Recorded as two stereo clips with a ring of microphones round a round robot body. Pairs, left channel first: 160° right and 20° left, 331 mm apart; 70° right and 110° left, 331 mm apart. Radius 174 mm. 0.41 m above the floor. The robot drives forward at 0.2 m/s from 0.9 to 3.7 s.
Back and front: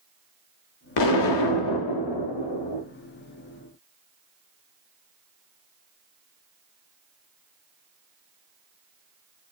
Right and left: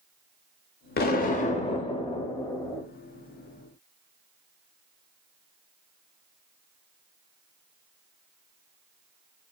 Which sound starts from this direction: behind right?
An explosion, at 1.0 s.